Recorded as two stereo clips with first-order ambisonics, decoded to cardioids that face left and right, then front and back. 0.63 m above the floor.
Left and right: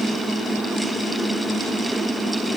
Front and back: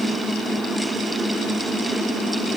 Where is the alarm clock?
I don't hear an alarm clock.